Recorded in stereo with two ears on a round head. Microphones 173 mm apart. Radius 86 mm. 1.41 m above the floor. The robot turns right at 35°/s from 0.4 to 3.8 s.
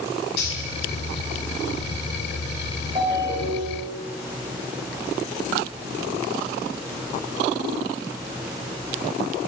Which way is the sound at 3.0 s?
25° right (ahead or behind).